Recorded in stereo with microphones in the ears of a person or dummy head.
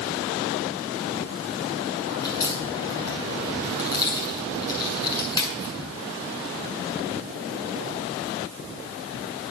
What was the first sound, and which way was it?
A crack, 25° left (ahead or behind).